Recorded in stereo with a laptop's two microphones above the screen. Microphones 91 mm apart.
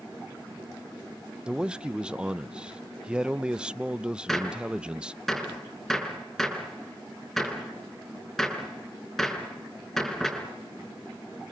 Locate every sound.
1.5 s a man speaking: 10° right (ahead or behind), 0.5 m
4.3 s a gunshot: 5° left (ahead or behind), 4.5 m